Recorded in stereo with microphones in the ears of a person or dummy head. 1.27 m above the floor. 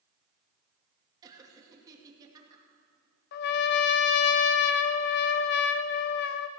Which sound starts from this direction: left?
A trumpet, at 3.3 s.